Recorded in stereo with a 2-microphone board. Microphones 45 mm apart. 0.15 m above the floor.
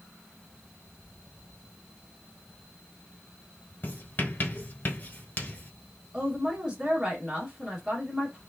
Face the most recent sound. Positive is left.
turn(degrees=-15)  # may be behind; listen again after turning